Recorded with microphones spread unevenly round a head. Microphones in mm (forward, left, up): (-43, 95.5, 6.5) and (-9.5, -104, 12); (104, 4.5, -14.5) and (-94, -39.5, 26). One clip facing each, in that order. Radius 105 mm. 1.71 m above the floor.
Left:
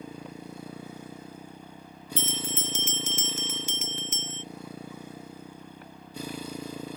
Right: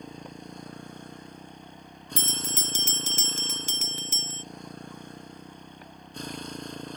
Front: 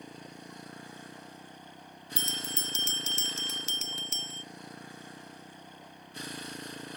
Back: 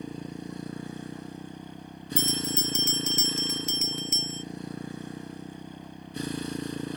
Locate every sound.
0.0 s a motorcycle: 175° right
2.2 s a bell: 50° right